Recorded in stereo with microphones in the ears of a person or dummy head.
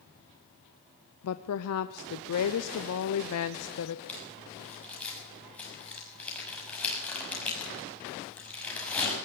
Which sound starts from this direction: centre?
Crumpling, at 4.1 s.